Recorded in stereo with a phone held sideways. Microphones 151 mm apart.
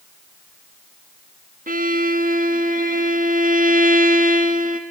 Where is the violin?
65° right (ahead or behind), 1.2 m.